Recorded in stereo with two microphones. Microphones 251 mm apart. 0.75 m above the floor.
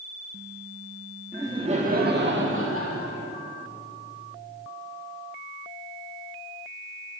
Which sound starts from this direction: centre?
Laughter, at 1.3 s.